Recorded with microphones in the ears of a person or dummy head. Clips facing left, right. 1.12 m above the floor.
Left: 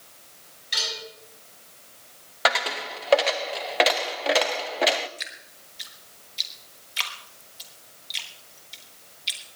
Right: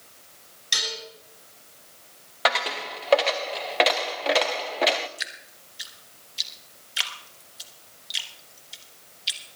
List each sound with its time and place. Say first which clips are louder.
0.7 s dishes clattering: even; 55° right (ahead or behind), 10 m
2.5 s a dropped coin: even; centre (ahead or behind), 0.5 m
5.2 s dripping: right 1 dB; 5° right (ahead or behind), 1.2 m